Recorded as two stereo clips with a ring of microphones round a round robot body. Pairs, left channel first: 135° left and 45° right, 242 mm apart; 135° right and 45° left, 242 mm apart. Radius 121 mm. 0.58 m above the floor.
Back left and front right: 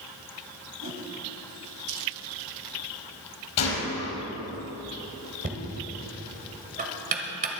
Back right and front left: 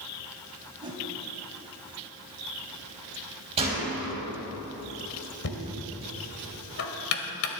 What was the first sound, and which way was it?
A whoosh, 25° right.